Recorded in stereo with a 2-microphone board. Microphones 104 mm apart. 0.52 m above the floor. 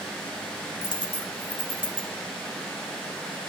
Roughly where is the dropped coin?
Left.